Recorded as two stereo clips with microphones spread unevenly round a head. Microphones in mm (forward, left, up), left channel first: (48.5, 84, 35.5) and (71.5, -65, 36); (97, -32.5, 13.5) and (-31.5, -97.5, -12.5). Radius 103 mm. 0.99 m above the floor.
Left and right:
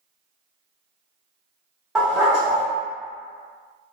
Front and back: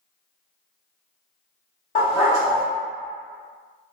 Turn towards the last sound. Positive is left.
turn(degrees=5)